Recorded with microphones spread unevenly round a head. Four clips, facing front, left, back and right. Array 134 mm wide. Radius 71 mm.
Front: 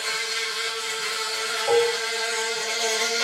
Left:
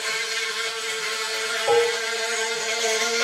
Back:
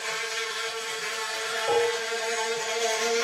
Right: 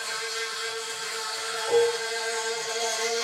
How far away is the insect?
About 7 m.